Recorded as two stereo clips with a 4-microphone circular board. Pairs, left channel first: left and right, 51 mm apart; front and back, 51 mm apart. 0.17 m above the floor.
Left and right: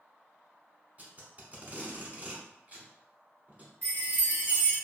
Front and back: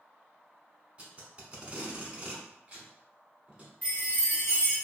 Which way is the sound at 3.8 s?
60° right.